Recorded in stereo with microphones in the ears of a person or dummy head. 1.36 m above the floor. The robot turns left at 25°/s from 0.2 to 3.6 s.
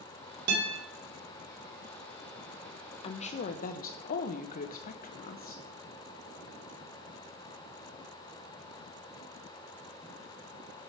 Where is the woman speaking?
30° left (ahead or behind), 0.9 m; by 5.6 s 45° left (ahead or behind), 0.9 m.